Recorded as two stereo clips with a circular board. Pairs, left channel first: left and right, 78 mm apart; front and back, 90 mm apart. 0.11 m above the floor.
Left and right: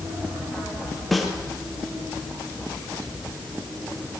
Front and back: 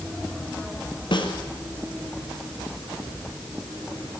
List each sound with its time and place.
1.1 s a snare drum: straight ahead, 3 m